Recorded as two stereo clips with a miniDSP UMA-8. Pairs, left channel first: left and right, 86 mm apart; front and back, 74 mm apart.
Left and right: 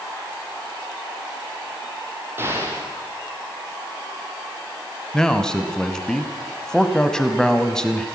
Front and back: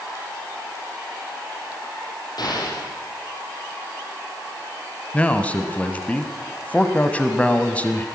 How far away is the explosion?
About 5 m.